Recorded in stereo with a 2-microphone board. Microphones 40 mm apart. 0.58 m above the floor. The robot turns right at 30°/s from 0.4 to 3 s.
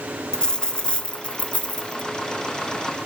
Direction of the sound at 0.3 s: 30° left.